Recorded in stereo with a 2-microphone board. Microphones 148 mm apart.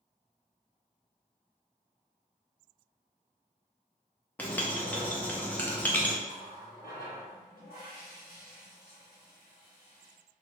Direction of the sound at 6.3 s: 85° left.